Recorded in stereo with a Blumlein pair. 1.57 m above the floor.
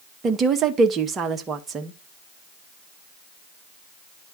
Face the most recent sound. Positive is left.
turn(degrees=-20)